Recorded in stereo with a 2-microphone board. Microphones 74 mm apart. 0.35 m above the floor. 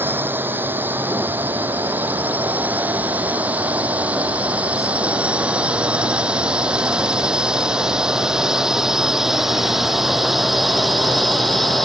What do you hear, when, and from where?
0.0 s a drone: 25° right (ahead or behind); by 11.8 s centre (ahead or behind)